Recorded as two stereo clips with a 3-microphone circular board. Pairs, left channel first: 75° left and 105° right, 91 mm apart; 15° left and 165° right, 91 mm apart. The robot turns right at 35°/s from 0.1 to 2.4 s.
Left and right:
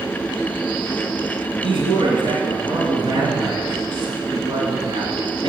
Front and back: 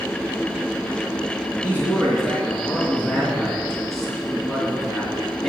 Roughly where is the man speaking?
Right.